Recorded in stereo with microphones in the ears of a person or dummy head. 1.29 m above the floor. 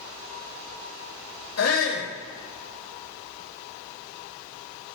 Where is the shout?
80° left, 3 m.